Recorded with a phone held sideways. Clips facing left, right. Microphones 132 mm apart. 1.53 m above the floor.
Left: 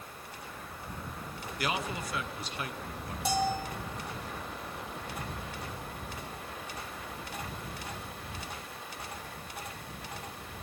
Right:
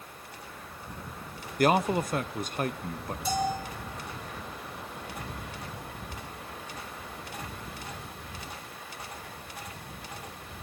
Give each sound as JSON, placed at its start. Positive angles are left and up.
{"t": 1.6, "sound": "a man speaking", "side_deg": -50, "distance_m": 0.7}
{"t": 3.2, "sound": "a bell", "side_deg": 85, "distance_m": 3.5}